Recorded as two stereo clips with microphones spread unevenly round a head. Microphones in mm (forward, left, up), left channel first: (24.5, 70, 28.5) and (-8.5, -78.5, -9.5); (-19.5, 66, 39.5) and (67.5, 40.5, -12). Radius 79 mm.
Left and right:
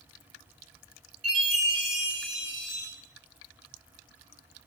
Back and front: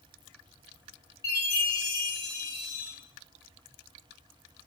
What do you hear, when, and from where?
1.2 s a chime: 160° right, 1.3 m